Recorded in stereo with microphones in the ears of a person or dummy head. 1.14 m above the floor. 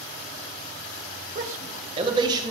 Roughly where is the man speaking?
Right.